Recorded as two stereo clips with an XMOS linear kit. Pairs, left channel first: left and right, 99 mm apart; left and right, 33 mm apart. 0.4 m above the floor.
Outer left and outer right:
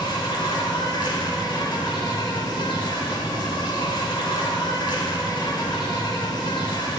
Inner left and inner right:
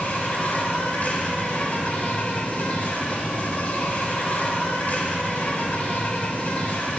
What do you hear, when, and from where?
0.0 s an insect: 50° left (ahead or behind), 0.8 m